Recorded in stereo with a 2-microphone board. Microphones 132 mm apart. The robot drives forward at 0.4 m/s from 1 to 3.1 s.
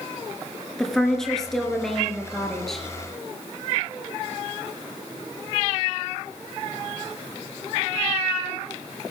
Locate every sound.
0.8 s a woman speaking: 5° left (ahead or behind), 2 m